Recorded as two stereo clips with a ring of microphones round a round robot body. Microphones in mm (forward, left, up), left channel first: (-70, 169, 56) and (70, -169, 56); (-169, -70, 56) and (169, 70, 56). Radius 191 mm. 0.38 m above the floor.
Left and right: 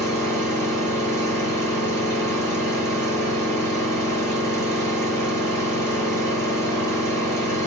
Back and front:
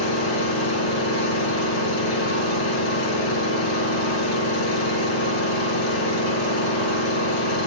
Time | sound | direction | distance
0.0 | an engine running | 165° right | 6 m